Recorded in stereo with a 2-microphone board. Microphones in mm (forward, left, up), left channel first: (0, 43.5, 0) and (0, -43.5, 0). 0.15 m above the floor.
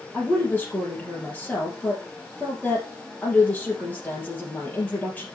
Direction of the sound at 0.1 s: 15° left (ahead or behind).